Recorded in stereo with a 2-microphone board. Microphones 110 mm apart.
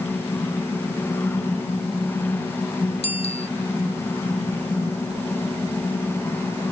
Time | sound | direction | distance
3.0 | a bicycle bell | 70° left (ahead or behind) | ?